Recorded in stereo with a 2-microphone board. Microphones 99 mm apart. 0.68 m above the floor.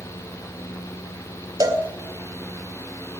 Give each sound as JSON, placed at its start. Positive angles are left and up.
{"t": 1.6, "sound": "a cowbell", "side_deg": -40, "distance_m": 2.0}